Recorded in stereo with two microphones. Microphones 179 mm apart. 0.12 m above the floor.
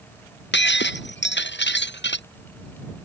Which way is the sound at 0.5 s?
85° left.